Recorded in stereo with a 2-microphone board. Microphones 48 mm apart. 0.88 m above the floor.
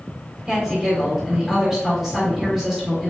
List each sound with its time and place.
0.5 s a woman speaking: 10° right (ahead or behind), 3.5 m